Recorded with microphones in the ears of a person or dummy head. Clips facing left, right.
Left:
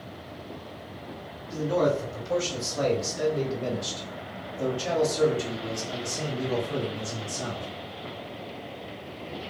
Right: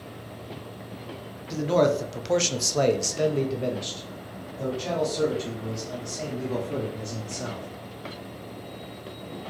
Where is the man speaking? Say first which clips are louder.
Right 3 dB; 75° right (ahead or behind), 1.0 m; by 7.7 s 25° left (ahead or behind), 2.5 m.